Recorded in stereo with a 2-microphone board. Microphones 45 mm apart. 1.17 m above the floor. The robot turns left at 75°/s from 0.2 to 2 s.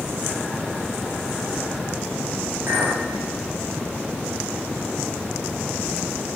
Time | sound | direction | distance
2.7 | a clink | 75° right (ahead or behind) | 3 m